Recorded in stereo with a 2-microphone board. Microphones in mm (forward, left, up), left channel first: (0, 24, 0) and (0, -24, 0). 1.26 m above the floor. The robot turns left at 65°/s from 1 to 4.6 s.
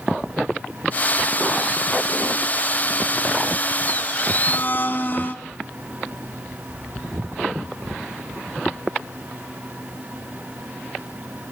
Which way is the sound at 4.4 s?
35° left (ahead or behind).